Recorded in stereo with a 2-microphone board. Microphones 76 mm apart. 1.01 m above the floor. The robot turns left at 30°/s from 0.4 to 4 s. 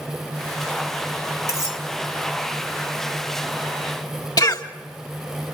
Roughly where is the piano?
I don't hear a piano.